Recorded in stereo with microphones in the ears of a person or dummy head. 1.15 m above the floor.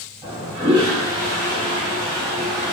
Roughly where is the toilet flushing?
Centre.